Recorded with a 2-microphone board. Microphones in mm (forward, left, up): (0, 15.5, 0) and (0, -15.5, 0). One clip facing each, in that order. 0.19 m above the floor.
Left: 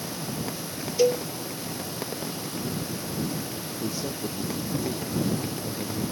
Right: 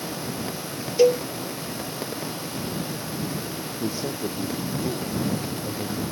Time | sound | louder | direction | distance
1.0 | a cowbell | right 4 dB | 20° right (ahead or behind) | ?
3.8 | a man speaking | right 3 dB | 25° right (ahead or behind) | ?